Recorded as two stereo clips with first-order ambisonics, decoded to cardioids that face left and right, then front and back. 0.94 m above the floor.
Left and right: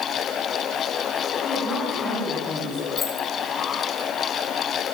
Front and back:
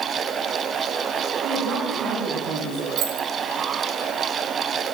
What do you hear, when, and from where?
1.4 s a woman speaking: 155° left, 7 m; by 2.9 s 170° left, 6.5 m
3.0 s keys jangling: 165° left, 1.6 m